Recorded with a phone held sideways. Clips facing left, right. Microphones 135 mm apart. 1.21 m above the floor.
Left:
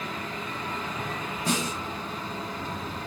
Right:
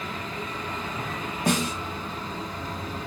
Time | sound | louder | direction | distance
1.5 | a snare drum | right 4 dB | 75° right (ahead or behind) | 0.8 m